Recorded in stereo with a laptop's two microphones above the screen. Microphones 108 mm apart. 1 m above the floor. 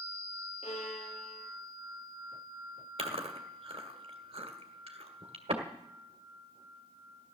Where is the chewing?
70° right (ahead or behind), 1.8 m.